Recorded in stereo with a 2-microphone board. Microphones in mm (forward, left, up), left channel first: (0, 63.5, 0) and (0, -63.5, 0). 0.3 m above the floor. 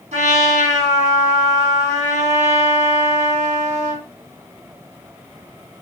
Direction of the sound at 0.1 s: 70° right (ahead or behind).